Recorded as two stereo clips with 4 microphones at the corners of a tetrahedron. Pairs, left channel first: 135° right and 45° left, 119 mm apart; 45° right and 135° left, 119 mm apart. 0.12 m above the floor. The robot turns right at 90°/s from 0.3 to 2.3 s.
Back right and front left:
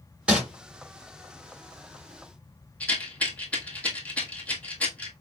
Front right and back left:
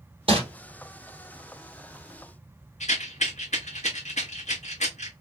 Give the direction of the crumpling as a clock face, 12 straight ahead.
8 o'clock.